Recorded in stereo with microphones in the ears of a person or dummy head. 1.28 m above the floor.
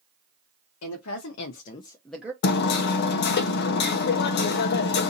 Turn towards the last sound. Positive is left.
turn(degrees=55)  # may be behind; listen again after turning